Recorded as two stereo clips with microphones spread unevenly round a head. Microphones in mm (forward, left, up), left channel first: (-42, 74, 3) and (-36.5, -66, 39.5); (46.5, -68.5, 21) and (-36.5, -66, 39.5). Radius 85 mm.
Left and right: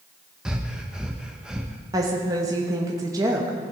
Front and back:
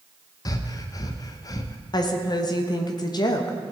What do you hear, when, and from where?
0.5 s breathing: 10° left, 0.8 m
1.9 s a woman speaking: 15° right, 1.0 m